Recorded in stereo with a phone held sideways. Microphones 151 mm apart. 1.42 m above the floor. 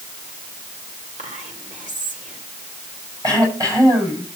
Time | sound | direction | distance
1.2 | whispering | 55° right (ahead or behind) | 5.5 m
3.2 | throat clearing | 25° right (ahead or behind) | 7 m